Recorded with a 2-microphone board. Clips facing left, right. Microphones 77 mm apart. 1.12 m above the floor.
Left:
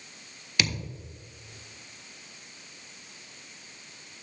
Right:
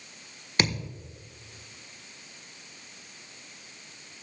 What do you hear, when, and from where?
0.6 s a thud: 35° right (ahead or behind), 1.3 m